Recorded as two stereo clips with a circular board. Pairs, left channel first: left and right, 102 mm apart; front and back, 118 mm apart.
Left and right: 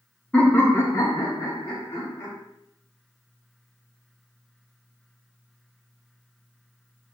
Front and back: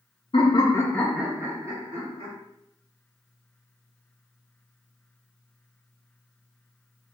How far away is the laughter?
About 0.6 m.